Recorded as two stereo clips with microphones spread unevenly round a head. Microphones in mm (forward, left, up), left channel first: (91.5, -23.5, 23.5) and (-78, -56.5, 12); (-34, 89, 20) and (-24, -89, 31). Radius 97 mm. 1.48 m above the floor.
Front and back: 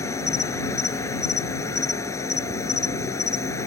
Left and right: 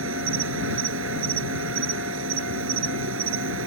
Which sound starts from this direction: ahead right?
An insect, at 0.0 s.